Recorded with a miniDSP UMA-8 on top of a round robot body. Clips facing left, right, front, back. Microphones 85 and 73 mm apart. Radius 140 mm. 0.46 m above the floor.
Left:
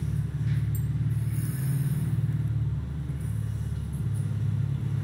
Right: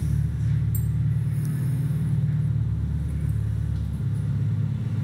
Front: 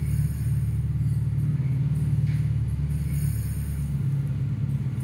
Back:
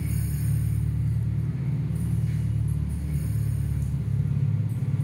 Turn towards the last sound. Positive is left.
turn(degrees=-15)